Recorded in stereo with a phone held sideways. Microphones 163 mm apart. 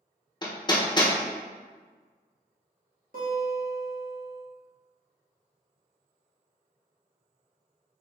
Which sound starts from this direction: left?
Hammering, at 0.4 s.